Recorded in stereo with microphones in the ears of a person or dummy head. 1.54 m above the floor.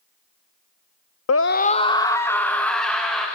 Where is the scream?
75° left (ahead or behind), 0.6 m; by 3.3 s 5° left (ahead or behind), 3 m.